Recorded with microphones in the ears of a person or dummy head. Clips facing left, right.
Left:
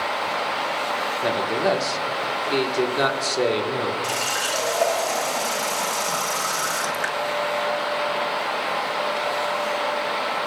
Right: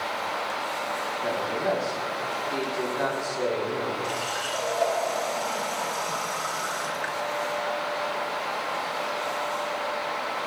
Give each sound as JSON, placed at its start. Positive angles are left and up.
{"t": 1.2, "sound": "a man speaking", "side_deg": 80, "distance_m": 1.4}
{"t": 4.0, "sound": "a running tap", "side_deg": 55, "distance_m": 1.6}